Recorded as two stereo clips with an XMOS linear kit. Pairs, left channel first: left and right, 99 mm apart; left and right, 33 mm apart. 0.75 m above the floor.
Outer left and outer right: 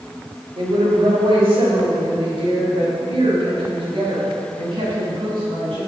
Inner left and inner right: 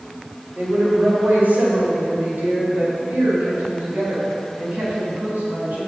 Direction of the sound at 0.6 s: 75° right (ahead or behind).